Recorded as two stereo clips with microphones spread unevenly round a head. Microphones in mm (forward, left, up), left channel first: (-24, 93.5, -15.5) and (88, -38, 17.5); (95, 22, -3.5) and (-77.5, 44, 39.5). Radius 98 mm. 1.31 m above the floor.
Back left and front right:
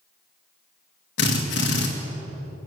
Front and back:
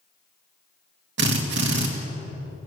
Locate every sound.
1.2 s a drill: 155° left, 2.5 m